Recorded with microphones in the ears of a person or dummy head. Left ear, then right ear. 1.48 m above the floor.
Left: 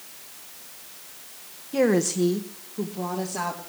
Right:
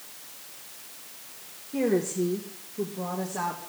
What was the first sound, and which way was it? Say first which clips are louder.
A woman speaking: left 4 dB; 70° left (ahead or behind).